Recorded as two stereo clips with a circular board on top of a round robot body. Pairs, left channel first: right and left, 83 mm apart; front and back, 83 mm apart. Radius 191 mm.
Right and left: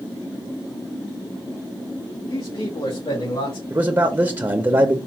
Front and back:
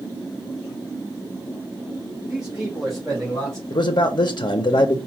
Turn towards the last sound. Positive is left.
turn(degrees=30)